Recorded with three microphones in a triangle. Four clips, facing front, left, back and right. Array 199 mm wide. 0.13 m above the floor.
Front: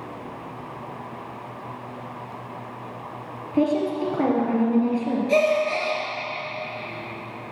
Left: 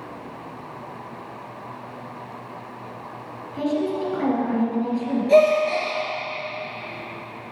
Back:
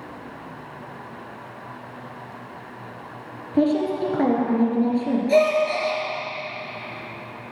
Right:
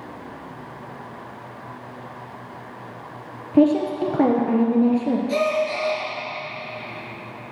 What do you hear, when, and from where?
3.5 s a woman speaking: 100° right, 2 m
5.3 s a gasp: 95° left, 2.5 m